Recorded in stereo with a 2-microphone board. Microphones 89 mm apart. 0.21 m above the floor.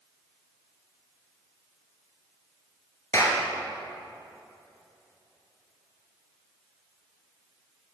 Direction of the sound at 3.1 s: 35° left (ahead or behind).